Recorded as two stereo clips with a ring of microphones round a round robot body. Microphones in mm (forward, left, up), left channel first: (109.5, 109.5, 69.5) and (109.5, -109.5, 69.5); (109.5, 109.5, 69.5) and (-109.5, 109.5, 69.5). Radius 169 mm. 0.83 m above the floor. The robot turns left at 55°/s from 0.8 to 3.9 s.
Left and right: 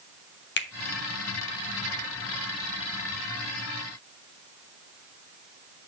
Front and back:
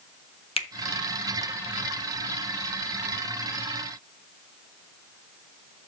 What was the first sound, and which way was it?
A finger snap, 60° left.